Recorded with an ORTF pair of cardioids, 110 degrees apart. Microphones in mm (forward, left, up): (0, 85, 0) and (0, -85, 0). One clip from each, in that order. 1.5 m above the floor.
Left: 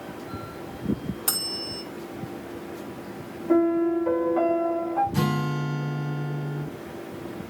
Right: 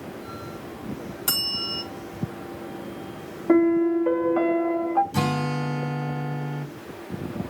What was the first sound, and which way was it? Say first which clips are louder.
A bell: right 5 dB; straight ahead.